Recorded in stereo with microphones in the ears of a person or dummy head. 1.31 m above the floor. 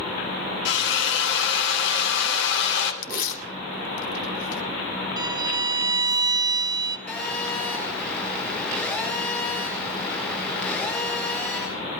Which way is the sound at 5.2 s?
15° right (ahead or behind).